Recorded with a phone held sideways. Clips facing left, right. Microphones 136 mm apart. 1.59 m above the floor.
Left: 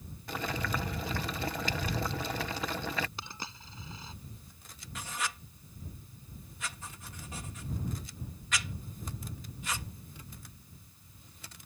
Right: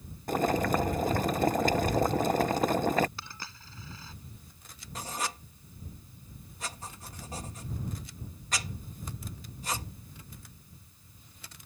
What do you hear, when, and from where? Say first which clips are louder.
0.3 s boiling: right 9 dB; 45° right (ahead or behind)
3.2 s a dropped coin: left 2 dB; 20° left (ahead or behind)
5.0 s writing: right 3 dB; 35° right (ahead or behind)